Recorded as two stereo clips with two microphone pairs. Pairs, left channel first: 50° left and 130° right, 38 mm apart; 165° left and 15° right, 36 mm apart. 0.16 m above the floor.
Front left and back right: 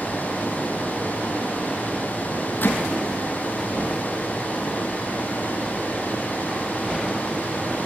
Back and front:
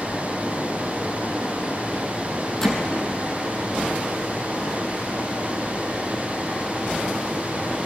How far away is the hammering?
About 2.5 m.